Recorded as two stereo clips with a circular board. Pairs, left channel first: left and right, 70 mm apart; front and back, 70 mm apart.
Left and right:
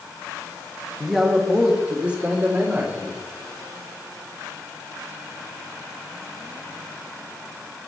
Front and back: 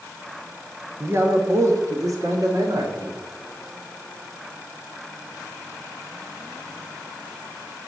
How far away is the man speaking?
About 1.0 m.